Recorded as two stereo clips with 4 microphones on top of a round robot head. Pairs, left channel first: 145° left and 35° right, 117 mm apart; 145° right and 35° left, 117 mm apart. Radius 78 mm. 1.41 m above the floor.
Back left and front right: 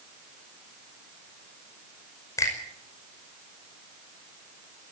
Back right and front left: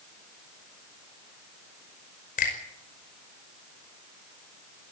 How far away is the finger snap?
About 5.5 m.